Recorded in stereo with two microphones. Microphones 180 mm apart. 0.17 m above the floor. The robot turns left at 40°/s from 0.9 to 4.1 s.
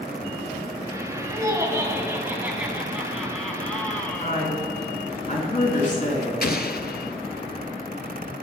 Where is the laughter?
20° right (ahead or behind), 1.0 m; by 4.5 s 10° left (ahead or behind), 1.0 m.